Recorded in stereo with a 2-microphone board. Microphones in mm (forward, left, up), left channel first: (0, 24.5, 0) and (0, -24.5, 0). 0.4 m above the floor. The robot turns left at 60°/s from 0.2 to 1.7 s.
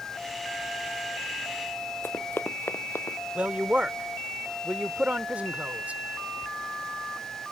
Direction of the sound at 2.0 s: 45° left (ahead or behind).